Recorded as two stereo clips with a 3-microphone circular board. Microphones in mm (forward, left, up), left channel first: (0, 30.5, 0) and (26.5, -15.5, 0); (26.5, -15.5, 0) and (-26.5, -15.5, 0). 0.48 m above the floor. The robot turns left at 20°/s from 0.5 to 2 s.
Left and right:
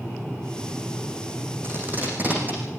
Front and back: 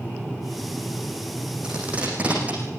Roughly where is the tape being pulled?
Right.